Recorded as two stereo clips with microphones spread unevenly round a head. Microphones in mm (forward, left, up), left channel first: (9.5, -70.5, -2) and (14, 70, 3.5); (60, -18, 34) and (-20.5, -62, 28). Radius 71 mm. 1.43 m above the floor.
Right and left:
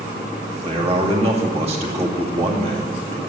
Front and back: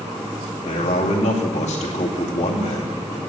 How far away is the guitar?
No guitar in this recording.